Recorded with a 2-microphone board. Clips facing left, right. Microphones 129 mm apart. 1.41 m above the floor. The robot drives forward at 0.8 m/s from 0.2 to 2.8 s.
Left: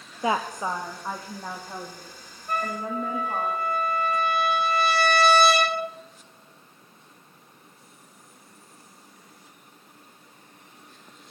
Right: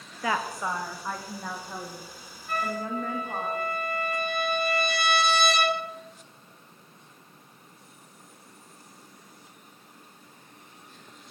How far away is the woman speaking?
About 0.6 m.